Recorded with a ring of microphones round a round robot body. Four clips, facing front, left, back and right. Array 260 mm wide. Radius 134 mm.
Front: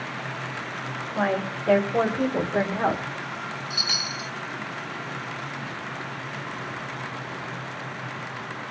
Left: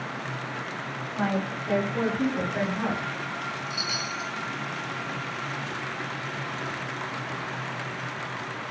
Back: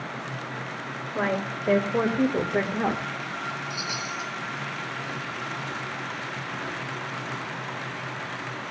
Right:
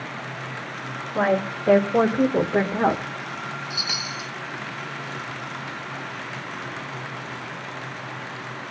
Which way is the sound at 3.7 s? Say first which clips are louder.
Even, back 1 dB; 50° right.